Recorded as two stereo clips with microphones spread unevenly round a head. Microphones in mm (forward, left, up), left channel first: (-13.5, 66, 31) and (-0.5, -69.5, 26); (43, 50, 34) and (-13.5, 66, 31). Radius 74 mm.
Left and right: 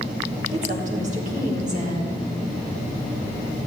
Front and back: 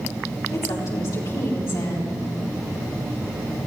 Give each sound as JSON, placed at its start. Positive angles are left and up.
{"t": 0.5, "sound": "a woman speaking", "azimuth_deg": -45, "distance_m": 3.5}